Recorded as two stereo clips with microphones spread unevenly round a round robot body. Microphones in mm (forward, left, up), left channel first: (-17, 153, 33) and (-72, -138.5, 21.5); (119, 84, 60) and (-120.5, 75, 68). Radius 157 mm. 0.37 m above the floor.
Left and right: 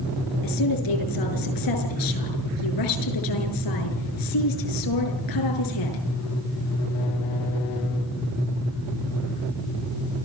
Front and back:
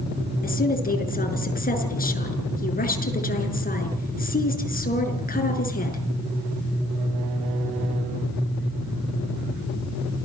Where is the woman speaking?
55° left, 6.5 m.